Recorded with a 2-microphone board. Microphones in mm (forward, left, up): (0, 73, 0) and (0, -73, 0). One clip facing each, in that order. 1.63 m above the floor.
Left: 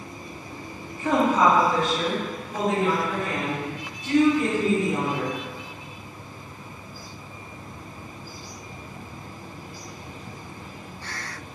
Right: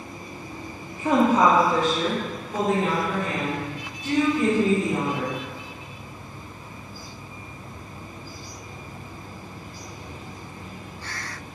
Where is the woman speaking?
10° right (ahead or behind), 0.6 m; by 5.4 s 50° right (ahead or behind), 3 m.